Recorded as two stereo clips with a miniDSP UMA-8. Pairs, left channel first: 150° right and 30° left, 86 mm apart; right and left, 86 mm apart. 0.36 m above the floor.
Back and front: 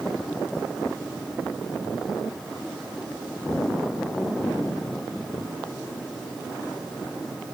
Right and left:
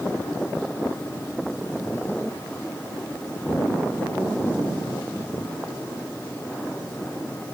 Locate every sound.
Only background noise.